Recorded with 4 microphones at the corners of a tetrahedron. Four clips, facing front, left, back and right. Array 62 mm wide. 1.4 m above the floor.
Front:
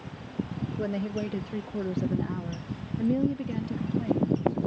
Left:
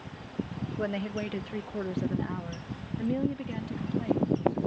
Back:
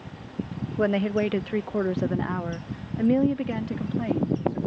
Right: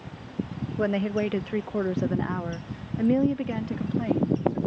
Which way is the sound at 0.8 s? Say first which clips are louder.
Right 7 dB, back 9 dB; 160° right.